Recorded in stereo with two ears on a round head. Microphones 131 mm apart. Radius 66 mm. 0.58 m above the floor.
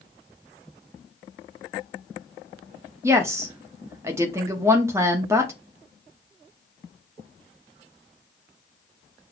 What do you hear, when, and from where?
3.0 s a woman speaking: 20° right (ahead or behind), 0.9 m